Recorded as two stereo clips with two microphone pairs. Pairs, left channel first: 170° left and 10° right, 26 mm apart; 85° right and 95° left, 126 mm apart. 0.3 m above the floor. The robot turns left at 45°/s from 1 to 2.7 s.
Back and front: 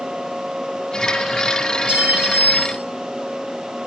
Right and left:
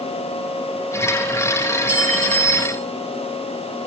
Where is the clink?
20° left, 3 m; by 2.8 s 20° right, 3 m.